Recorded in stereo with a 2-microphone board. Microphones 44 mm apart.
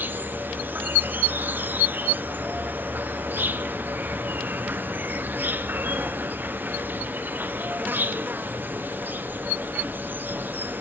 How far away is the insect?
About 1.0 m.